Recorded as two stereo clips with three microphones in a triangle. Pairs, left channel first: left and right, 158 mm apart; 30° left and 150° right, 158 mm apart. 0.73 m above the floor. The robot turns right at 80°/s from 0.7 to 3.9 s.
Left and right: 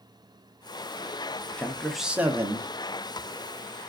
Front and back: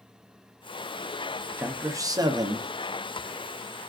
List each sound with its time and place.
1.6 s a man speaking: 150° left, 0.6 m; by 2.7 s 120° right, 0.6 m